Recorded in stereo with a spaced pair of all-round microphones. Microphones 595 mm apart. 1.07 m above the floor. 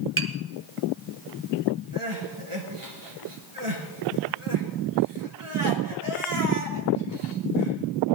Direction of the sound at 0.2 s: 20° right (ahead or behind).